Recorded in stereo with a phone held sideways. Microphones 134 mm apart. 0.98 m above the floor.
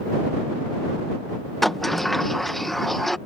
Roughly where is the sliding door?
Centre.